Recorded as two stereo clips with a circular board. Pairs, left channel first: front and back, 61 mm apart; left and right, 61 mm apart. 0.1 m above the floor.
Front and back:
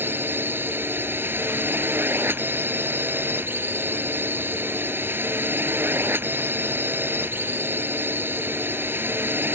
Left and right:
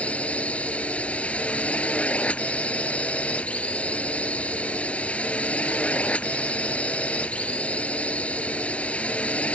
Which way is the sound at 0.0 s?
145° left.